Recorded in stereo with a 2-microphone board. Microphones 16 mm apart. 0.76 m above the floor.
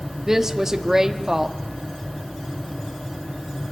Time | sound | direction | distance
0.3 | a woman speaking | 25° right (ahead or behind) | 1.2 m